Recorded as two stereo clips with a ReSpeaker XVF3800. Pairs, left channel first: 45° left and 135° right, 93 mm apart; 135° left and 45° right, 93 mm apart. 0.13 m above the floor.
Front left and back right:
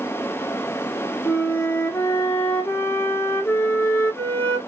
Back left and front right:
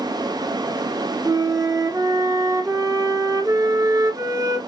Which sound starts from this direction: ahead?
A flute, at 1.2 s.